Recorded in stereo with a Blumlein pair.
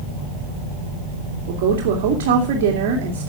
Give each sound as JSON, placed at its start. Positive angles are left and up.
{"t": 1.5, "sound": "a woman speaking", "azimuth_deg": -50, "distance_m": 2.5}